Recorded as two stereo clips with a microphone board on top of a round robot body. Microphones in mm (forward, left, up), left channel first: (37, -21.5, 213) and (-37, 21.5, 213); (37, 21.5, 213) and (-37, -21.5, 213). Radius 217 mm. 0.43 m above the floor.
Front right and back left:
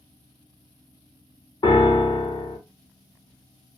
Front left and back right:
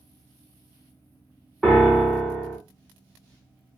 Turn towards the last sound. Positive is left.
turn(degrees=-60)